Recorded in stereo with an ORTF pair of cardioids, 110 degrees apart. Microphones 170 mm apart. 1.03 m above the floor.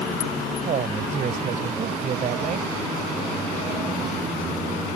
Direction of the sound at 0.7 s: 50° right.